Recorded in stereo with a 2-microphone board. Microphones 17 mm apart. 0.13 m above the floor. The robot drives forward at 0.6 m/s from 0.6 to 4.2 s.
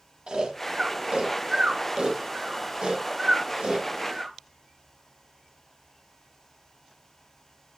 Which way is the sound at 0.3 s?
85° right.